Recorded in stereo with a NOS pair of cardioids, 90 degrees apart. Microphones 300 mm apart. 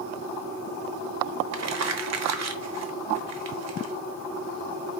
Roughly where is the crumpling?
Ahead right.